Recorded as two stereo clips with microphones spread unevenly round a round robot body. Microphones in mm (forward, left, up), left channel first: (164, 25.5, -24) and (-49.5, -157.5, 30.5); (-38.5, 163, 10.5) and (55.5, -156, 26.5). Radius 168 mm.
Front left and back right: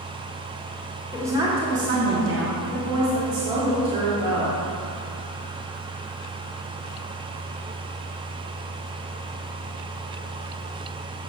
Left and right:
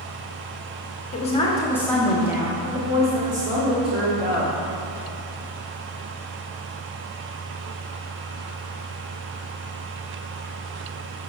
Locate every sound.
1.1 s a woman speaking: 115° left, 0.9 m; by 4.6 s 130° right, 1.8 m